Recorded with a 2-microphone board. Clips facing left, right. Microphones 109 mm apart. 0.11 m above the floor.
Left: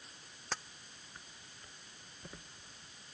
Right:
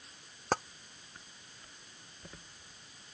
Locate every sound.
0.5 s tapping: 55° right (ahead or behind)